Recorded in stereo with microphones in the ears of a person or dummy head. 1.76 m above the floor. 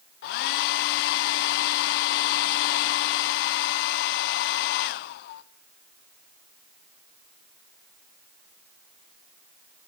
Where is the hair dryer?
55° left (ahead or behind), 0.7 m.